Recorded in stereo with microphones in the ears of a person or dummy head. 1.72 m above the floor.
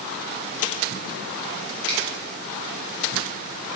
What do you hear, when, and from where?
1.9 s a finger snap: 35° right (ahead or behind), 2 m